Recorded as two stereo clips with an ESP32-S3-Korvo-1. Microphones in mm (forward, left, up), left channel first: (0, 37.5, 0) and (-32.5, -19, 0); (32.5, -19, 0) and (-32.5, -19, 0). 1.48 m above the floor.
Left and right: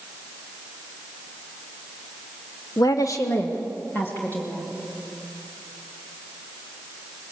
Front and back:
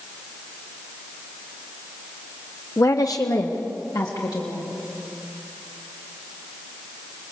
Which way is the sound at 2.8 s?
40° left.